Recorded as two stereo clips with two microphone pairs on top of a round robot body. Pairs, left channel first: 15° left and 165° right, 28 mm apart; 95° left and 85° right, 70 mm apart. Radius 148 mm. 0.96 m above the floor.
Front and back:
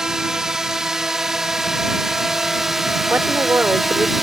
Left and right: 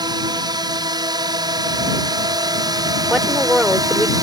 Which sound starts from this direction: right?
A drone, at 0.0 s.